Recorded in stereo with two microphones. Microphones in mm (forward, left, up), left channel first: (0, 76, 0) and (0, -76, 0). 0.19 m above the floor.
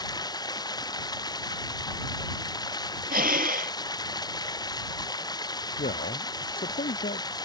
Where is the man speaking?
70° left (ahead or behind).